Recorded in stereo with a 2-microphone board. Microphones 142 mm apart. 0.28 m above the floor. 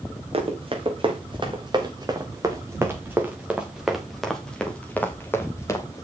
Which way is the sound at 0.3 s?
45° right (ahead or behind).